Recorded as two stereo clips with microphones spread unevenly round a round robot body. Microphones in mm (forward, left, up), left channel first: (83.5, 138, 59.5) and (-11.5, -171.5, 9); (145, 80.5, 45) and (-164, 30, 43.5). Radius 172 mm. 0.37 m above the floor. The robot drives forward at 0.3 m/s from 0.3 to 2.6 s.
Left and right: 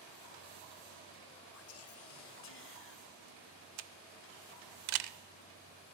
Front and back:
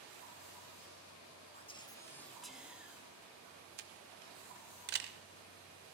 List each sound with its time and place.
1.5 s whispering: 65° left, 0.9 m; by 3.0 s 105° left, 0.9 m
3.8 s a camera shutter: 115° right, 0.5 m